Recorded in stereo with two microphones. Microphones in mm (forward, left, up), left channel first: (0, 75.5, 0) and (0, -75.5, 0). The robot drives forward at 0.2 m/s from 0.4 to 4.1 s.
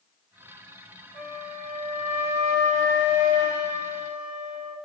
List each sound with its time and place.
1.1 s a flute: 50° left (ahead or behind), 1.5 m; by 4.8 s 35° left (ahead or behind), 1.9 m